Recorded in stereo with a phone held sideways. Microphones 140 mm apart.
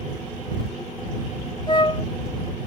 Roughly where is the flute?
Left.